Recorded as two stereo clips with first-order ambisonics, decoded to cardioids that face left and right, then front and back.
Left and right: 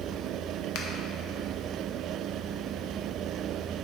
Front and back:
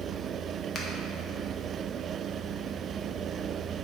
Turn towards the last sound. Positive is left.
turn(degrees=60)